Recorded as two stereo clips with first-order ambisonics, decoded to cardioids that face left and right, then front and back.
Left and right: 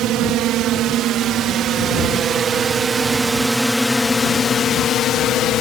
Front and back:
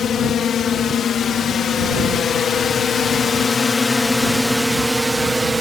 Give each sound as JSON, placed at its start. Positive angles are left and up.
{"t": 0.0, "sound": "a drone", "azimuth_deg": -55}